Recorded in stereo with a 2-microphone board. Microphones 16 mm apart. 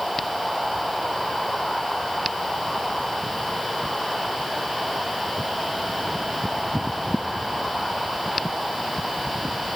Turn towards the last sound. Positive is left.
No sound to turn to.